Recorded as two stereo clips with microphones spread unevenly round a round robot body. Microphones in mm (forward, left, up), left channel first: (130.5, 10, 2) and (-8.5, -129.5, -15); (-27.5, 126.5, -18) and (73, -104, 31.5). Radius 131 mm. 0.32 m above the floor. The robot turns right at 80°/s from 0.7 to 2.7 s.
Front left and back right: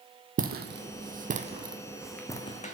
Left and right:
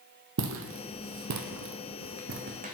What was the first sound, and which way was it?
Footsteps, 85° right.